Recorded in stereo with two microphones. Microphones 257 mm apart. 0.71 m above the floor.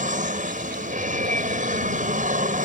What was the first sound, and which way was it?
An aircraft, 30° right (ahead or behind).